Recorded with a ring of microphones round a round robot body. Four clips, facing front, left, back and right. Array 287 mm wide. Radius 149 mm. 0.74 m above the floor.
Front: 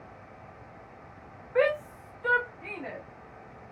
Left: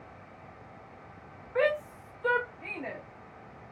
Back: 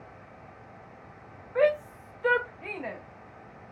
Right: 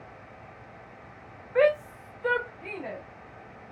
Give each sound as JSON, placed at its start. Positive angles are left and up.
{"t": 1.6, "sound": "a shout", "azimuth_deg": -55, "distance_m": 0.9}